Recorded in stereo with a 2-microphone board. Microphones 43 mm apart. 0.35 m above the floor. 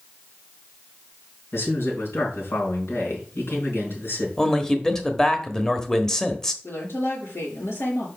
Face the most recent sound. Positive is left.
turn(degrees=70)  # may be behind; listen again after turning